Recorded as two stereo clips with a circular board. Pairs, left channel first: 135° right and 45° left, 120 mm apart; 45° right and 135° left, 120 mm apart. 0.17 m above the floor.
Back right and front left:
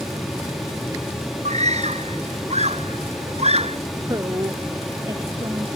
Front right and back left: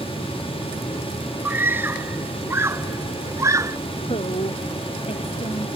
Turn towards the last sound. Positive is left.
turn(degrees=-15)